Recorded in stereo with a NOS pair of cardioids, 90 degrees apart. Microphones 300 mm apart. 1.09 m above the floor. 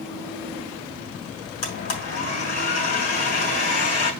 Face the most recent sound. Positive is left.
turn(degrees=60)